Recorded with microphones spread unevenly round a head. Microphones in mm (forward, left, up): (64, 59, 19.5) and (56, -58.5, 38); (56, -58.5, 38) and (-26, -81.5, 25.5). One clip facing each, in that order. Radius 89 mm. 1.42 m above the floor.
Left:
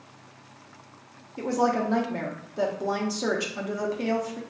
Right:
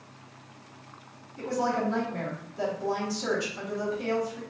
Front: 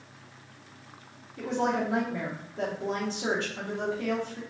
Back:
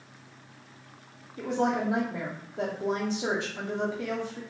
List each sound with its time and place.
1.4 s a woman speaking: 120° left, 0.6 m